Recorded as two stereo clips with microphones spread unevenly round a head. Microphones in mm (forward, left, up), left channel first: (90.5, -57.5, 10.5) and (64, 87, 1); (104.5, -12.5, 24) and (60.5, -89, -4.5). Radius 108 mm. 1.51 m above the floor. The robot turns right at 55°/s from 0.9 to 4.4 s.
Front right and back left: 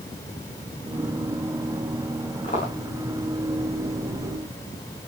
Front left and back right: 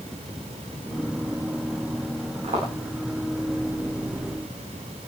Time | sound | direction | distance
2.4 | footsteps | 150° right | 7.5 m